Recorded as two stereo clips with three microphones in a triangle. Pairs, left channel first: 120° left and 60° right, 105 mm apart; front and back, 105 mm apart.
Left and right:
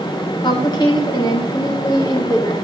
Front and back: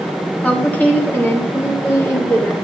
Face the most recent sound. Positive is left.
turn(degrees=60)